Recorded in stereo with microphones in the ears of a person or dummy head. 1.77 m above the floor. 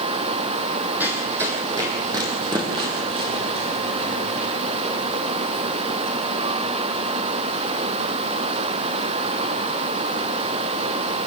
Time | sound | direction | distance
1.0 | running footsteps | 10° right (ahead or behind) | 4 m